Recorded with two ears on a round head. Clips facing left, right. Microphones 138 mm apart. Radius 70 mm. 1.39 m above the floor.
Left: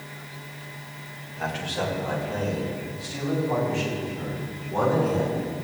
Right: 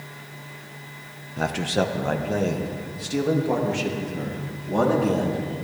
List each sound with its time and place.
1.4 s a man speaking: 55° right (ahead or behind), 1.3 m; by 5.4 s 65° right (ahead or behind), 4 m